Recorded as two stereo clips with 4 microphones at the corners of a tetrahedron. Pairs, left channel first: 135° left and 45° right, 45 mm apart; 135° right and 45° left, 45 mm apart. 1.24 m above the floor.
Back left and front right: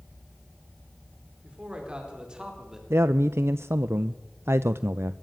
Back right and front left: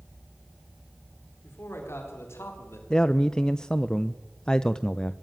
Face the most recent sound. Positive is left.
turn(degrees=-65)